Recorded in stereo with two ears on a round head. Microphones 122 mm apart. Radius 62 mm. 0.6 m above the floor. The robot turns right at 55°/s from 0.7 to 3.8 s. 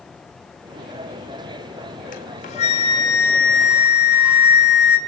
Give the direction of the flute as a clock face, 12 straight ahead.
9 o'clock.